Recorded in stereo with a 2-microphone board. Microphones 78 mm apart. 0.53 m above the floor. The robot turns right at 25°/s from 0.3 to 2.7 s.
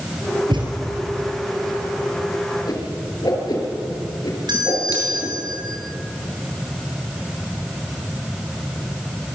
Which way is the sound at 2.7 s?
55° left (ahead or behind).